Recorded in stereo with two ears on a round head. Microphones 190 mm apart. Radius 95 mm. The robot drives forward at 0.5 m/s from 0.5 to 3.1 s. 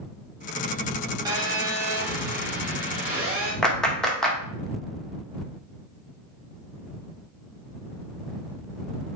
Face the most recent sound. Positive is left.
turn(degrees=5)  # may be behind; listen again after turning